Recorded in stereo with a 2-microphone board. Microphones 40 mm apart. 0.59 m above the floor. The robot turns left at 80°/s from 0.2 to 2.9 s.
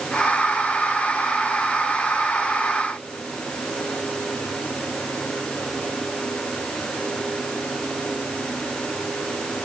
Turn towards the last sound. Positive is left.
No sound to turn to.